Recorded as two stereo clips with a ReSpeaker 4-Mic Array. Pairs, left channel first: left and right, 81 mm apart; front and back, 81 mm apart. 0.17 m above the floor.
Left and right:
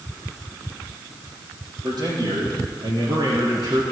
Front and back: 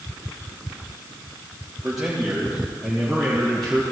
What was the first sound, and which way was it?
A man speaking, 95° right.